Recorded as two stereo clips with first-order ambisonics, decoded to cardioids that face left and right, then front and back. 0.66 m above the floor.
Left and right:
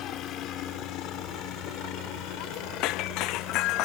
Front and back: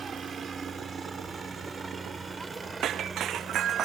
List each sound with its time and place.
0.0 s a helicopter: 115° left; by 3.9 s 105° left
2.8 s breaking glass: 125° left